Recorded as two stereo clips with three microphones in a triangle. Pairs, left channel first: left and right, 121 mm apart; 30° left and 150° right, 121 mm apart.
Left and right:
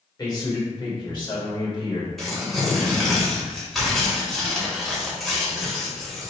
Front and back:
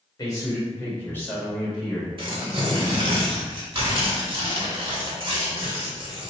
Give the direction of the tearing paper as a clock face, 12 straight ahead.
6 o'clock.